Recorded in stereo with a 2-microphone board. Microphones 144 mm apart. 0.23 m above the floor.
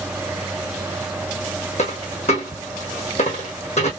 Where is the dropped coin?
50° left (ahead or behind), 1.6 m.